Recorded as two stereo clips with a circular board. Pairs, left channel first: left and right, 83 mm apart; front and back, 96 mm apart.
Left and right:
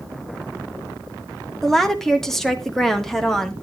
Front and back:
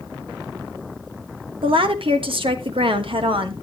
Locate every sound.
1.6 s a woman speaking: 175° left, 1.4 m